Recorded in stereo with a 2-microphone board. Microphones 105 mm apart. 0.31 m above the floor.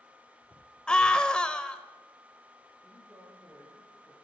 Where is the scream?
10° left (ahead or behind), 1.0 m.